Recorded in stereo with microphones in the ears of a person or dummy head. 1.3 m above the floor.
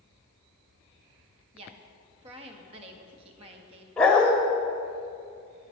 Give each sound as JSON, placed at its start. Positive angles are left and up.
{"t": 1.5, "sound": "a woman speaking", "side_deg": -35, "distance_m": 1.7}
{"t": 4.0, "sound": "a dog barking", "side_deg": 0, "distance_m": 1.4}